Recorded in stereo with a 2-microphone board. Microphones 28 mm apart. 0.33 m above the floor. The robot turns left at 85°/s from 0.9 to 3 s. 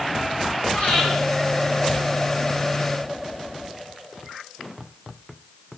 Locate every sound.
0.7 s breathing: 45° left (ahead or behind), 6 m; by 1.0 s 35° left (ahead or behind), 6 m